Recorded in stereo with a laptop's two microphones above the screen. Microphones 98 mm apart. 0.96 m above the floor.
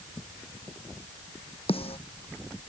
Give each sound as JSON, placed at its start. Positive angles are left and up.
{"t": 1.7, "sound": "a snare drum", "side_deg": 75}